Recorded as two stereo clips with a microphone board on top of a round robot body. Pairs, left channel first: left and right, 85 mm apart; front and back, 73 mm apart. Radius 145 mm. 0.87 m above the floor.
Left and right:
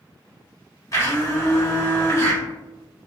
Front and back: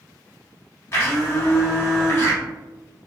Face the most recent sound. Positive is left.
turn(degrees=45)